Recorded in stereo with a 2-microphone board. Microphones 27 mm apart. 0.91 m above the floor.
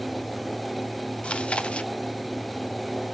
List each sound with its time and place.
1.2 s chewing: 55° left (ahead or behind), 0.7 m